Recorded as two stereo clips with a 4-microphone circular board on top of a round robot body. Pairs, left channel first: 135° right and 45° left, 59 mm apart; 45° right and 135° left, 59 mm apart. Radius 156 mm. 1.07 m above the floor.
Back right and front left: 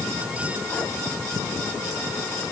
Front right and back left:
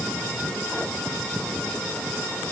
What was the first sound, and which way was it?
Only background noise.